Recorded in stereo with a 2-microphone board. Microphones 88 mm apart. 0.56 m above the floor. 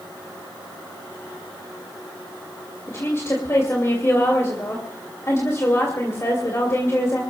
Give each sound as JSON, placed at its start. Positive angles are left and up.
{"t": 2.9, "sound": "a woman speaking", "side_deg": 35, "distance_m": 2.5}